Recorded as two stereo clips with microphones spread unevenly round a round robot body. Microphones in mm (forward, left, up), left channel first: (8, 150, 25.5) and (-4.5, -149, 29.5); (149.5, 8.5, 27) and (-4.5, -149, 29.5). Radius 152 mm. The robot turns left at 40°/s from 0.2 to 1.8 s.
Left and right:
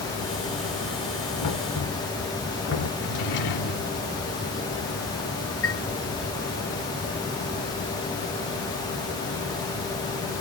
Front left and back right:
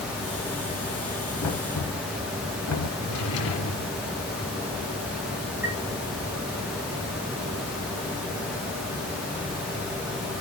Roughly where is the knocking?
Ahead left.